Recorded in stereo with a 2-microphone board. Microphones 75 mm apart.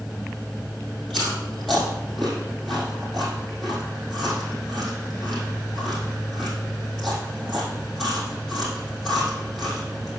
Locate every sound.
1.1 s chewing: centre (ahead or behind), 5 m